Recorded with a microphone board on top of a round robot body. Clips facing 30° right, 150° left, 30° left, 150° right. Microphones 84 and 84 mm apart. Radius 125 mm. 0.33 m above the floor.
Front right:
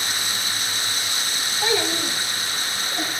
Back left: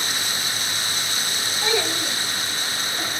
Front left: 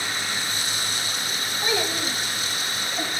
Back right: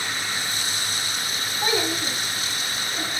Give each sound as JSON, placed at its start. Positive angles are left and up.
{"t": 1.6, "sound": "a child speaking", "azimuth_deg": -95, "distance_m": 4.0}